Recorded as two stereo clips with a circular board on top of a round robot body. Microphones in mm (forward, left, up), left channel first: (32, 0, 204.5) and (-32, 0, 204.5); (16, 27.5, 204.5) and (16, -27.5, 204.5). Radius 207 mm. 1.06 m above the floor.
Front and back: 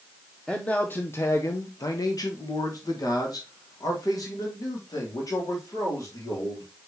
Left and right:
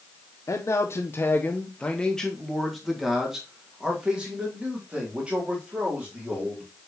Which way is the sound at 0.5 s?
75° left.